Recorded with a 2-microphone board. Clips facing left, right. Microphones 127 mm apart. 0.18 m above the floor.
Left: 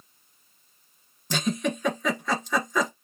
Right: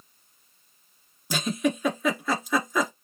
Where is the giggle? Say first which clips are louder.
Right 1 dB; 5° right (ahead or behind), 1.4 m.